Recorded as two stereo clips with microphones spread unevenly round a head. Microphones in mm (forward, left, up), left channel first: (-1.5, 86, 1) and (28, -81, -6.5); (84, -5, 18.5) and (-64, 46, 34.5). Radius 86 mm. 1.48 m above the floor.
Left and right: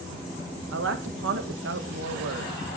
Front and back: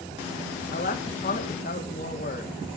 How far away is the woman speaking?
About 1.8 m.